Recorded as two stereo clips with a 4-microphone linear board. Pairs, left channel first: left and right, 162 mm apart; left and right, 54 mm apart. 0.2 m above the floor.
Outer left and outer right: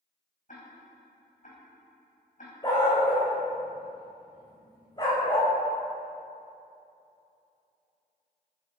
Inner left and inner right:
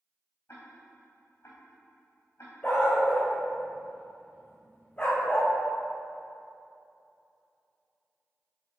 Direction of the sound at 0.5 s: 50° left (ahead or behind).